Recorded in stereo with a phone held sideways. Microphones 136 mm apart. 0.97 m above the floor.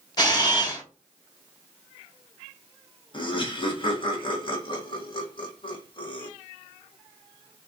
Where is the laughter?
40° left (ahead or behind), 1.0 m.